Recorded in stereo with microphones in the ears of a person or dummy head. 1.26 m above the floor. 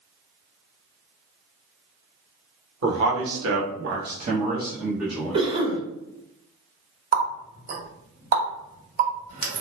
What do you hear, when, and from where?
2.8 s a man speaking: 60° right (ahead or behind), 1.0 m; by 5.4 s centre (ahead or behind), 1.1 m
5.3 s a cough: 35° right (ahead or behind), 0.8 m
7.1 s a running tap: 50° right (ahead or behind), 1.0 m